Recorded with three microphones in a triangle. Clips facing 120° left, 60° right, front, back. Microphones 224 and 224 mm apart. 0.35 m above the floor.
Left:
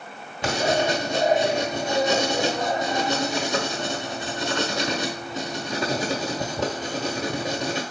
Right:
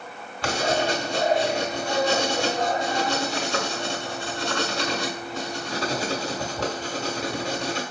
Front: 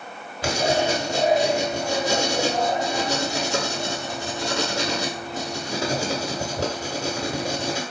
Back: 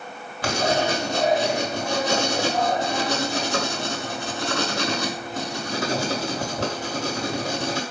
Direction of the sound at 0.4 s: 60° left.